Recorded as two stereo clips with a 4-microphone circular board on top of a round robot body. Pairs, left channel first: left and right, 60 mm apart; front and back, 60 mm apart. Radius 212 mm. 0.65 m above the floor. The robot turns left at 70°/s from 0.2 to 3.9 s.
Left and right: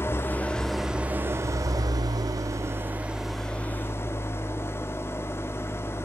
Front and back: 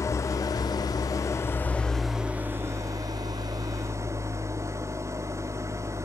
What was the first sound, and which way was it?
An engine running, 40° left.